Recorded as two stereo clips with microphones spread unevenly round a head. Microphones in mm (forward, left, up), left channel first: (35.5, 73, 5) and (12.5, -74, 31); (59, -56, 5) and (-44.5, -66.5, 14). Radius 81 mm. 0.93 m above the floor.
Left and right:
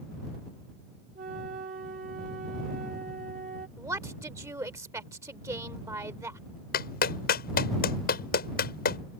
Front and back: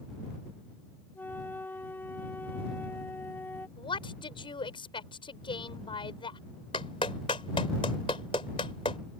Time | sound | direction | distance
1.1 | a flute | 65° right | ?
3.8 | a woman speaking | 30° right | ?
6.7 | a clap | 65° left | ?